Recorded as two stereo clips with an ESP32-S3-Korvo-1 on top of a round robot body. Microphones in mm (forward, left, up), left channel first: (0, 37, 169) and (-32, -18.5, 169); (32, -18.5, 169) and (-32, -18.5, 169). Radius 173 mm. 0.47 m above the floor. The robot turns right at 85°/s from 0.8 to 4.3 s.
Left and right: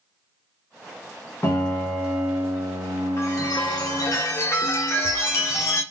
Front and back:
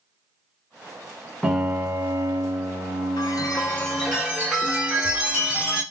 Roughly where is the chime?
Ahead.